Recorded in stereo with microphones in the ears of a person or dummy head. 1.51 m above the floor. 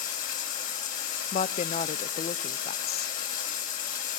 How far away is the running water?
About 3.5 m.